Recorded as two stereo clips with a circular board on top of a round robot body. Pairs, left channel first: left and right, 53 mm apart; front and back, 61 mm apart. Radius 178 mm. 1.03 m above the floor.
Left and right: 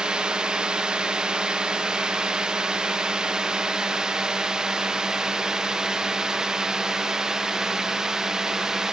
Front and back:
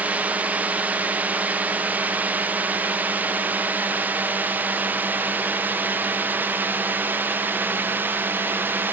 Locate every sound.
0.0 s a drone: 150° right; by 8.9 s 160° right